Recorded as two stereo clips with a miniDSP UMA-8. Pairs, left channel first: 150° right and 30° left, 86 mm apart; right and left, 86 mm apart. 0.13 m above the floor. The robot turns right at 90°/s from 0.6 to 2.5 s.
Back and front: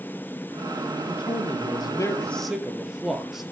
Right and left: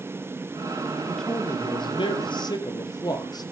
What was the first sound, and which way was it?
A man speaking, 175° left.